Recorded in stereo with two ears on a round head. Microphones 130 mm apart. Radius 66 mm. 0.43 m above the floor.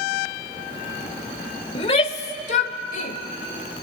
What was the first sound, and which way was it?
A shout, 35° left (ahead or behind).